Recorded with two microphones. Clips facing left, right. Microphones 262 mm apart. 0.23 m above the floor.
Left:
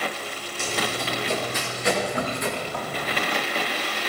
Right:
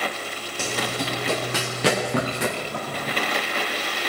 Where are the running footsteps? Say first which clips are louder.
Right 1 dB; 75° right (ahead or behind), 5 m; by 2.5 s 80° right, 3.5 m.